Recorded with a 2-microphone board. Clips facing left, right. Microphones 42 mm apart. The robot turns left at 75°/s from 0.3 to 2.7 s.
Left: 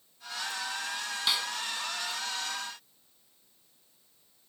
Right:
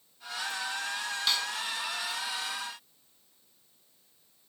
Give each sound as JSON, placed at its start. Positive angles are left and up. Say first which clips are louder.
{"t": 1.3, "sound": "a snare drum", "louder": "left 1 dB", "side_deg": 5, "distance_m": 2.5}